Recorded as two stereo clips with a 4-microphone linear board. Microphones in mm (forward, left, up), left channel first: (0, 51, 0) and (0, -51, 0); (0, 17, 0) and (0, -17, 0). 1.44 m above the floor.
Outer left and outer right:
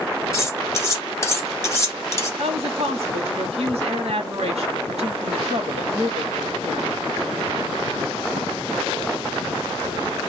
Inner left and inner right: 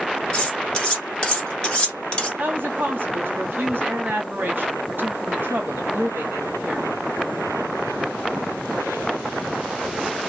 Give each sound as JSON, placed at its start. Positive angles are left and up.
{"t": 0.3, "sound": "cutlery clinking", "side_deg": 30, "distance_m": 1.2}
{"t": 2.4, "sound": "a woman speaking", "side_deg": -80, "distance_m": 1.2}